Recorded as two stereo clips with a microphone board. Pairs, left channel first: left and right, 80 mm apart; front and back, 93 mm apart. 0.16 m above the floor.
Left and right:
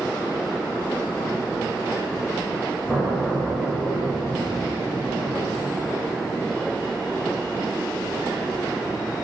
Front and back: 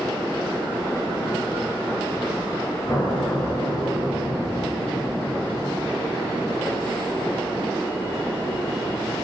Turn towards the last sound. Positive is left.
turn(degrees=25)